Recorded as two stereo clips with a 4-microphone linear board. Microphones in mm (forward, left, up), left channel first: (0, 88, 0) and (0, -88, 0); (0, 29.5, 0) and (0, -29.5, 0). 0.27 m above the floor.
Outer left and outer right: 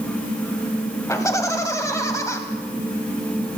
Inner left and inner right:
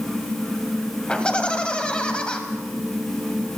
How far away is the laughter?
About 1.5 m.